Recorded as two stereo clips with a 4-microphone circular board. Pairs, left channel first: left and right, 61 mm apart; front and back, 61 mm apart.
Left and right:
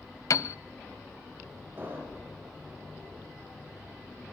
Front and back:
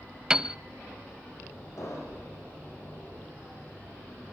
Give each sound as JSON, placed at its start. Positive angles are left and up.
{"t": 0.3, "sound": "a piano", "azimuth_deg": 105, "distance_m": 0.6}
{"t": 1.8, "sound": "an explosion", "azimuth_deg": -35, "distance_m": 9.0}